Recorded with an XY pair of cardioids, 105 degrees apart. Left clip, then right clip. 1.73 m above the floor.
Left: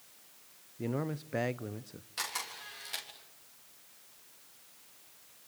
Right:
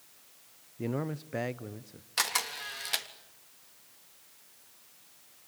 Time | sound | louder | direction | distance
0.8 | a man speaking | right 1 dB | 15° right | 0.8 m
2.2 | a camera shutter | right 7 dB | 60° right | 3 m